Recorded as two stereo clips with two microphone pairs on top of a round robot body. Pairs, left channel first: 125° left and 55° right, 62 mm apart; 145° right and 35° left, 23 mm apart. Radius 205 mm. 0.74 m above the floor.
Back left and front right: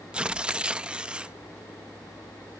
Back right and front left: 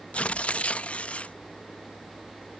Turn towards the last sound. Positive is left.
turn(degrees=-130)